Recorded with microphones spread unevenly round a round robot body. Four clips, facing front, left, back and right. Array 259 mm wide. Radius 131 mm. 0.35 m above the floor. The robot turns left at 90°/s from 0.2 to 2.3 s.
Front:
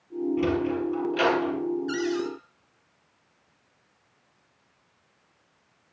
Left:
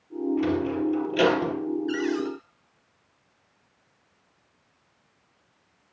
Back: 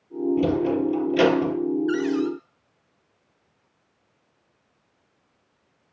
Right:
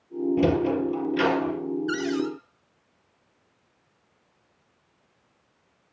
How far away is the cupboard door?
About 2.5 m.